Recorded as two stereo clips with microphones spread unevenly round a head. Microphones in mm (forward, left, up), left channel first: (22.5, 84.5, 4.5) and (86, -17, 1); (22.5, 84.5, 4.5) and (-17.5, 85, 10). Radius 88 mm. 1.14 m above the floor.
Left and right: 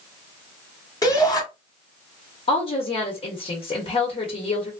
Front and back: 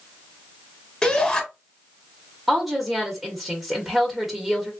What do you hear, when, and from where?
1.0 s a shout: 65° left, 1.2 m
2.5 s a woman speaking: 95° left, 1.0 m